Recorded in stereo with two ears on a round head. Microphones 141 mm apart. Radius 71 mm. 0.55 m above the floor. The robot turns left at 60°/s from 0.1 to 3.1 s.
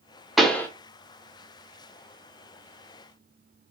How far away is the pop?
About 0.7 m.